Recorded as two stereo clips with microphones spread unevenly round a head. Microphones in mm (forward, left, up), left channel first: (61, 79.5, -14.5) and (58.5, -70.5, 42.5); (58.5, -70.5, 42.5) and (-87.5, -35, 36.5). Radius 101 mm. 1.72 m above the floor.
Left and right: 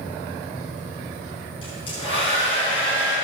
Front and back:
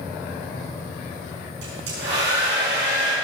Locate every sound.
1.6 s a hair dryer: 160° left, 5.5 m